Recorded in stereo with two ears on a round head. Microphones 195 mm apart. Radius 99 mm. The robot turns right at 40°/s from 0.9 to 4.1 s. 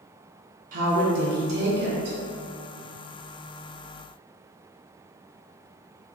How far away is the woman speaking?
About 1.0 m.